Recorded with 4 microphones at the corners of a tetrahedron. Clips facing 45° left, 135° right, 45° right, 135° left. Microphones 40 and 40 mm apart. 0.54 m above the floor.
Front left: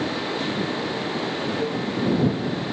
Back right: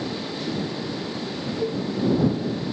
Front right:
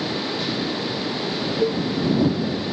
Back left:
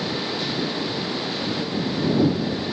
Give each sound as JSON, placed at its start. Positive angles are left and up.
{"t": 1.6, "sound": "a cowbell", "azimuth_deg": -40}